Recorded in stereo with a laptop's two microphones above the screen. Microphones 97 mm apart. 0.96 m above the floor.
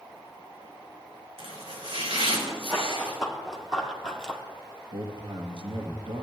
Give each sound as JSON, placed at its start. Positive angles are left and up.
{"t": 1.4, "sound": "chopping", "side_deg": -80, "distance_m": 4.0}
{"t": 2.7, "sound": "running footsteps", "side_deg": 0, "distance_m": 2.5}
{"t": 4.9, "sound": "a man speaking", "side_deg": -55, "distance_m": 1.0}